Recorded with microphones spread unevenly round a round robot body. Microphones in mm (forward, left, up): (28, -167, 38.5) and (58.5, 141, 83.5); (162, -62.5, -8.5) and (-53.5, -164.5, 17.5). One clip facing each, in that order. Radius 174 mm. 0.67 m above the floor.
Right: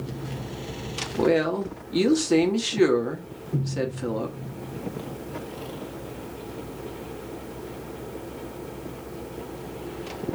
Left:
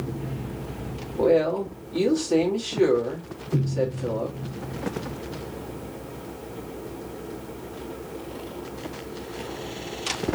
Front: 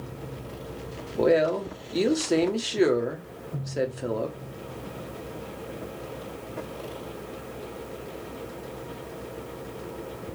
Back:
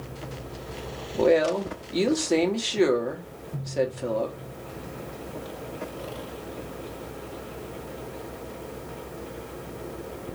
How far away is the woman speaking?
About 1.1 m.